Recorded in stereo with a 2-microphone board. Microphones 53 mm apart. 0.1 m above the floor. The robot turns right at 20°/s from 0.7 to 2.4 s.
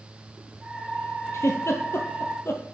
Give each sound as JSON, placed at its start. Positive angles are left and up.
{"t": 1.3, "sound": "a giggle", "side_deg": 65, "distance_m": 1.1}